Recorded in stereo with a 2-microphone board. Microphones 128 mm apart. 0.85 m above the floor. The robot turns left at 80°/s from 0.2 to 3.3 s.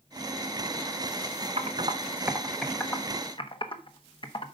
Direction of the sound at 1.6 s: 55° right (ahead or behind).